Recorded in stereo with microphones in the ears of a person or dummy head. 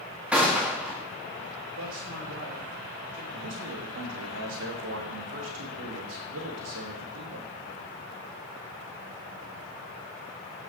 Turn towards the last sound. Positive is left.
turn(degrees=-70)  # may be behind; listen again after turning